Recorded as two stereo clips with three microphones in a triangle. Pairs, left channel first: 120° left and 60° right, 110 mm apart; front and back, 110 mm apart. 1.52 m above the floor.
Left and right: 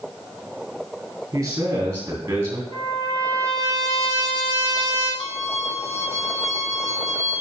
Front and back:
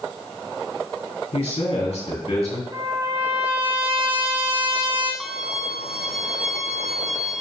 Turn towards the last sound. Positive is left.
turn(degrees=95)